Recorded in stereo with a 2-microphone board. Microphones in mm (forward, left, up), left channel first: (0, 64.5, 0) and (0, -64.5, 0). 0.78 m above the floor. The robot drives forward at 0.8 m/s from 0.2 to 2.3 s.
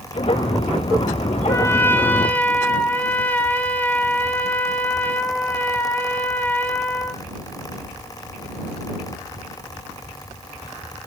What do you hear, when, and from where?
1.5 s a trumpet: 20° left (ahead or behind), 0.6 m; by 7.2 s 10° left (ahead or behind), 1.1 m